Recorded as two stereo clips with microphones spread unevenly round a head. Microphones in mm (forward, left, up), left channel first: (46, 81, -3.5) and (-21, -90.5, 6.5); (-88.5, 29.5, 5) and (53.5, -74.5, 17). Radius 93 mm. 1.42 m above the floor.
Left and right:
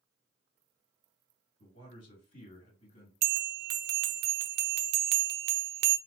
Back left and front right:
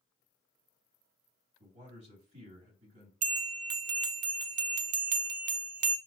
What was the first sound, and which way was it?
A man speaking, 20° left.